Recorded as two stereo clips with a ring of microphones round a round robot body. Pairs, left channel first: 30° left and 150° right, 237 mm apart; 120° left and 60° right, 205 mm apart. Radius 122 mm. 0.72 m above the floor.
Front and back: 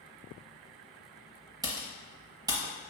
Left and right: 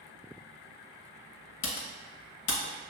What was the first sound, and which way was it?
Typing on a keyboard, 135° left.